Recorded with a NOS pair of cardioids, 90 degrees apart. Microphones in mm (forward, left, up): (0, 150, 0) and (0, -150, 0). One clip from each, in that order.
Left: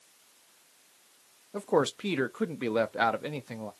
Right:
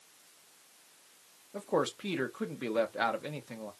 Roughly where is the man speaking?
Ahead left.